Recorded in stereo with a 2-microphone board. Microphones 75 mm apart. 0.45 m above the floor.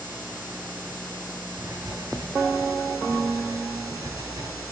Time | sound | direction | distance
1.6 | writing | 55° right (ahead or behind) | 3.5 m